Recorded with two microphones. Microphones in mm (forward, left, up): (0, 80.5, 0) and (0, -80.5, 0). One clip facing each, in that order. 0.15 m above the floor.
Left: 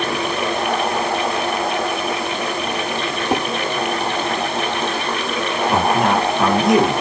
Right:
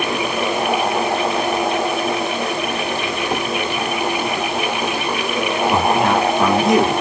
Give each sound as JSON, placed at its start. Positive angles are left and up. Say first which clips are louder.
{"t": 3.3, "sound": "dishes clattering", "louder": "left 4 dB", "side_deg": 25, "distance_m": 7.0}
{"t": 5.7, "sound": "a man speaking", "louder": "even", "side_deg": 0, "distance_m": 4.0}